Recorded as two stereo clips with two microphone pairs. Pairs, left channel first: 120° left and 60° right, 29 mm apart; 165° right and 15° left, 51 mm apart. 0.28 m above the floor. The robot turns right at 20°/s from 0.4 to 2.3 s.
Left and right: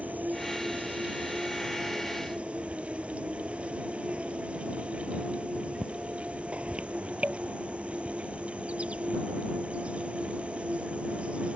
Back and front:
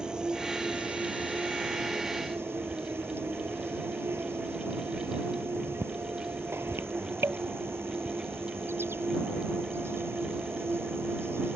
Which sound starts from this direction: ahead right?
An insect, at 0.0 s.